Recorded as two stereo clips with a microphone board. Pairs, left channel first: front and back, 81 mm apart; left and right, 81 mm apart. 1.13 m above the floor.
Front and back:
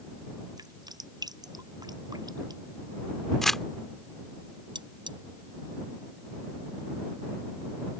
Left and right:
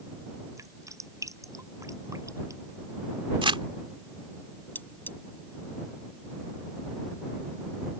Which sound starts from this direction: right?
Crumpling, at 3.4 s.